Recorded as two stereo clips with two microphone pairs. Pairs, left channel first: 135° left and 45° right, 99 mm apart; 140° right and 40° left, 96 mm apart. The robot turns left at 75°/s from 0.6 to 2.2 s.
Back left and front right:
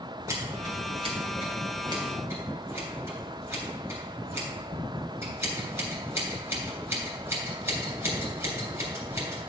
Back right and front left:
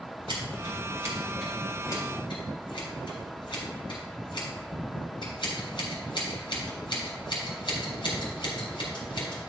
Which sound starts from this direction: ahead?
Scissors, at 0.3 s.